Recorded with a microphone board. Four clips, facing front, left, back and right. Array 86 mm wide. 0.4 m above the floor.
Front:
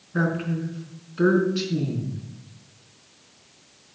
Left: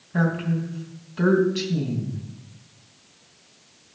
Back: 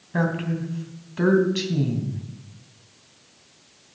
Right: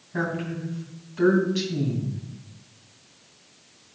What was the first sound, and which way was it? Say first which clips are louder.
A woman speaking: left 4 dB, even; 170° left.